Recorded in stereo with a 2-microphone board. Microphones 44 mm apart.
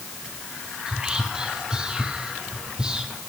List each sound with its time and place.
0.9 s whispering: 20° right (ahead or behind), 1.1 m